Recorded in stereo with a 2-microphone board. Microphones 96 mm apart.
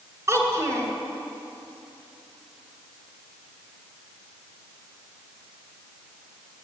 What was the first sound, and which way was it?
A child speaking, 30° right (ahead or behind).